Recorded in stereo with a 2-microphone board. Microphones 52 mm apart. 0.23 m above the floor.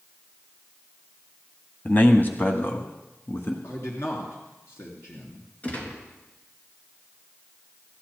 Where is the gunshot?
30° left (ahead or behind), 3.5 m.